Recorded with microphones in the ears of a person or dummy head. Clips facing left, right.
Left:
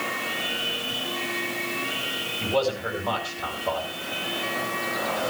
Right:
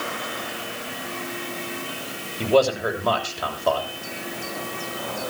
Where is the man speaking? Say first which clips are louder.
Right 6 dB; 70° right (ahead or behind), 6 m.